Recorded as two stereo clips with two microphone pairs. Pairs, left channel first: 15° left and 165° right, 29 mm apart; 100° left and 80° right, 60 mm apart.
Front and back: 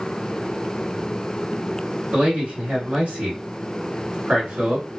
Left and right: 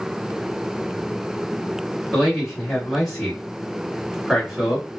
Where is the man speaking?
170° right, 1.8 m.